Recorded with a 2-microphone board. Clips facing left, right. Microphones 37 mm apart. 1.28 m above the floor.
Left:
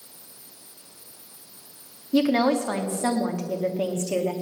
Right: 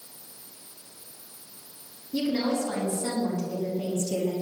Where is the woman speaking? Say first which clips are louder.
Left 6 dB; 80° left, 2 m.